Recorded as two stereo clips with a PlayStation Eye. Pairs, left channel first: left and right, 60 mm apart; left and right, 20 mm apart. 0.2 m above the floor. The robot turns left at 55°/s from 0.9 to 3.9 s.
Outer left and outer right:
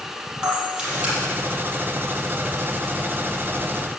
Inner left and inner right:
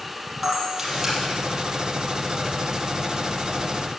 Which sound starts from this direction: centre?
A camera shutter, at 0.4 s.